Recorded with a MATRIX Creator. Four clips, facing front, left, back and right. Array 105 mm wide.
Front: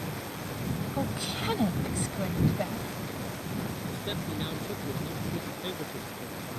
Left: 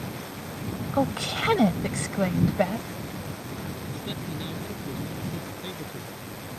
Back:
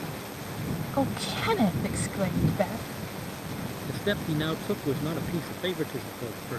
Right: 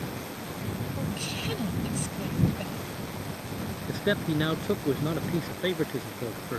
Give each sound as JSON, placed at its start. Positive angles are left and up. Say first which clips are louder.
{"t": 0.9, "sound": "a woman speaking", "louder": "left 8 dB, back 9 dB", "azimuth_deg": 110}
{"t": 3.9, "sound": "a man speaking", "louder": "right 7 dB, back 6 dB", "azimuth_deg": -120}